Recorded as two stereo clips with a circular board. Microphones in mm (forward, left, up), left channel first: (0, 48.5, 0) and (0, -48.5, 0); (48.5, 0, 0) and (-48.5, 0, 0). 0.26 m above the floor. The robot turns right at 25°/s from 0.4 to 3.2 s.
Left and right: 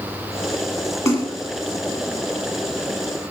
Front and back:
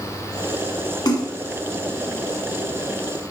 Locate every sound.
1.1 s a splash: 35° left, 1.8 m; by 1.3 s 45° left, 1.8 m